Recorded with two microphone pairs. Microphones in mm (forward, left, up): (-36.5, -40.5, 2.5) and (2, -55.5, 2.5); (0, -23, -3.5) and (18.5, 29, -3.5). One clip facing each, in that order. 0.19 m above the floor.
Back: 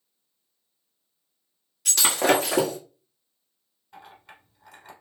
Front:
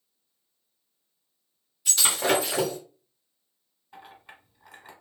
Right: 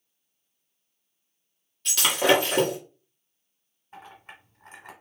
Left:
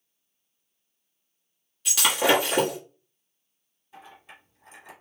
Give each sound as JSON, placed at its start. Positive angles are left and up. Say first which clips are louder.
{"t": 1.9, "sound": "breaking glass", "louder": "back 3 dB, right 1 dB", "azimuth_deg": 155, "distance_m": 1.5}
{"t": 3.9, "sound": "a clink", "louder": "even, right 2 dB", "azimuth_deg": -100, "distance_m": 1.4}